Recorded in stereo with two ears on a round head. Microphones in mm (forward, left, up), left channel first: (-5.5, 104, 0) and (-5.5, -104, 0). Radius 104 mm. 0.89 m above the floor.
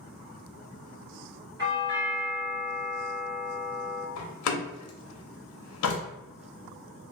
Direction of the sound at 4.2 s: 70° left (ahead or behind).